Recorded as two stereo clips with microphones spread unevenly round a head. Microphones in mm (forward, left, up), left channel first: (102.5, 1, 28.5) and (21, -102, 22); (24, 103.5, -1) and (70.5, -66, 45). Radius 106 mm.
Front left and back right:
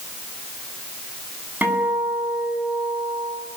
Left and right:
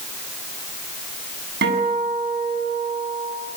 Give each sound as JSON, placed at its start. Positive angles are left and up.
{"t": 1.6, "sound": "a guitar", "azimuth_deg": -50, "distance_m": 8.5}